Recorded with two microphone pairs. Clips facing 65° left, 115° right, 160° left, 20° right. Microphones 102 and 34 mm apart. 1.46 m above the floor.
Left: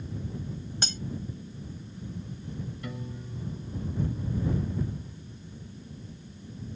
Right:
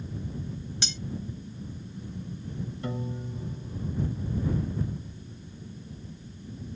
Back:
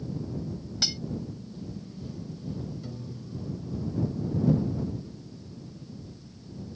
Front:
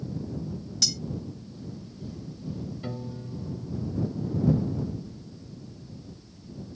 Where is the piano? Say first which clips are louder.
Right 5 dB, front 4 dB; 60° right.